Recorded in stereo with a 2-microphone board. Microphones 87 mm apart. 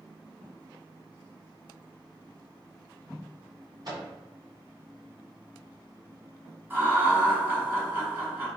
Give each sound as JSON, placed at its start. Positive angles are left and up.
{"t": 3.9, "sound": "a microwave", "side_deg": -55, "distance_m": 1.7}
{"t": 6.7, "sound": "laughter", "side_deg": -20, "distance_m": 1.8}